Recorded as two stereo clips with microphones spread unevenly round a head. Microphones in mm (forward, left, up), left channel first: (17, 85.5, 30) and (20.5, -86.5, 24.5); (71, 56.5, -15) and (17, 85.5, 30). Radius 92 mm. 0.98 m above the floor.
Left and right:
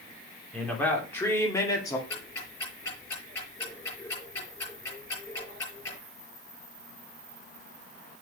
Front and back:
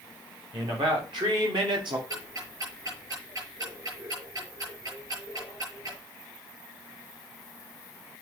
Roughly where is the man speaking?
Behind.